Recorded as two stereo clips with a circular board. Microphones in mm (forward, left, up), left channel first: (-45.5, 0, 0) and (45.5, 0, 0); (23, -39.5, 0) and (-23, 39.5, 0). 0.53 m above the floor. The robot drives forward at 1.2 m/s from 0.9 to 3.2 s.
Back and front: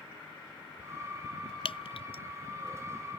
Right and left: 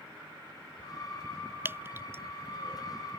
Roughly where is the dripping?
Behind.